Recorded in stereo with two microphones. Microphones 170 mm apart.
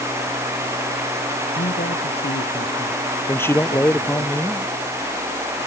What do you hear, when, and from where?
1.6 s a man speaking: 75° left (ahead or behind)
3.3 s a man speaking: 15° left (ahead or behind)